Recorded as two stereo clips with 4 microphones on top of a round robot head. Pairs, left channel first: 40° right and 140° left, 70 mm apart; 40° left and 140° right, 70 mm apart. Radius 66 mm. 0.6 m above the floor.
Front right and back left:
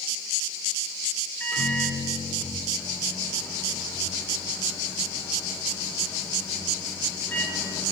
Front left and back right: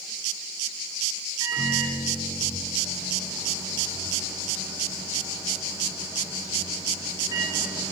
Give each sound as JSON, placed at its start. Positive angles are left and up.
{"t": 1.4, "sound": "a microwave", "azimuth_deg": -110, "distance_m": 1.5}